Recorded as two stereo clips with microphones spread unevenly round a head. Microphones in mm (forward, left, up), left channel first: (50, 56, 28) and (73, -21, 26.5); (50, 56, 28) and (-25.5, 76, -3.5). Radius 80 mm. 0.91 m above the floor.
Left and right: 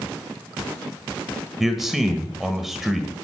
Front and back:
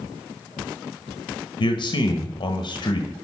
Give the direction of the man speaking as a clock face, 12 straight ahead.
11 o'clock.